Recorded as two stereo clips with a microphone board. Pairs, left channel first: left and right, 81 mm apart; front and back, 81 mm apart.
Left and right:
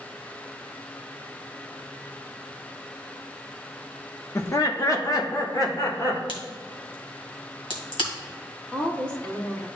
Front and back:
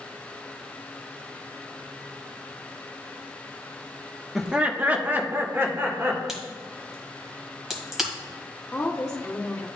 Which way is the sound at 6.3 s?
95° left.